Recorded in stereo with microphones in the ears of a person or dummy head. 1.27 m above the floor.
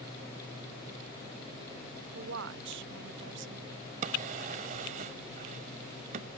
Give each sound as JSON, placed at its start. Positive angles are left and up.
{"t": 2.1, "sound": "a woman speaking", "side_deg": -60}
{"t": 4.0, "sound": "a drawer", "side_deg": -40}